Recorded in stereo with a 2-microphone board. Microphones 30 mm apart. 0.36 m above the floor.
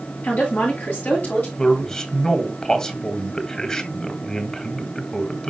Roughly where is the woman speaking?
Left.